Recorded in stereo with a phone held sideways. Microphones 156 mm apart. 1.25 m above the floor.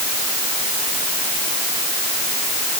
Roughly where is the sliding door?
No sliding door in this recording.